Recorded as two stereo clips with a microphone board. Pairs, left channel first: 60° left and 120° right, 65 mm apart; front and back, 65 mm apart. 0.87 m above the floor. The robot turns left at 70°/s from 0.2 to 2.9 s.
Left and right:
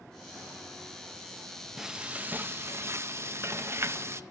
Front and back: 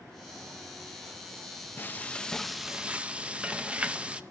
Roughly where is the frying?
Ahead right.